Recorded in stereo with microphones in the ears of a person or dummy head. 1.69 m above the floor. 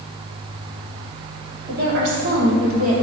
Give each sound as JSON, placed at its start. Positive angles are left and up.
{"t": 1.7, "sound": "a woman speaking", "side_deg": -60, "distance_m": 3.0}